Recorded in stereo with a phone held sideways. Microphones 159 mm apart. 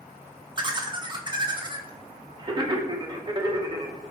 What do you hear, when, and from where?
0.6 s laughter: 30° right (ahead or behind), 0.5 m